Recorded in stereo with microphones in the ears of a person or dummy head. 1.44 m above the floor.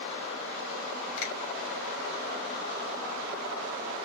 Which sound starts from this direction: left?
A finger snap, at 1.2 s.